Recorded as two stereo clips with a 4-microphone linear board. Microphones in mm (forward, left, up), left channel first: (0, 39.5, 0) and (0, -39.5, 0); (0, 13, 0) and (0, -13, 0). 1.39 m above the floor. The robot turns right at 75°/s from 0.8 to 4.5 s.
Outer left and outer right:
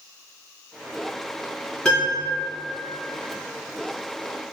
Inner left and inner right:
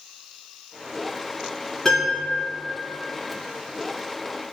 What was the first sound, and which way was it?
A piano, 5° left (ahead or behind).